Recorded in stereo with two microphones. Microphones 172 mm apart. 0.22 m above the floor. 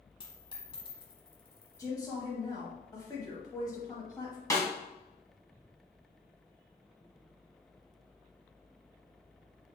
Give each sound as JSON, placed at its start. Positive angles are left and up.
{"t": 0.2, "sound": "a dropped coin", "side_deg": 30, "distance_m": 0.9}
{"t": 1.8, "sound": "a woman speaking", "side_deg": 20, "distance_m": 0.9}
{"t": 4.5, "sound": "a snare drum", "side_deg": 20, "distance_m": 1.1}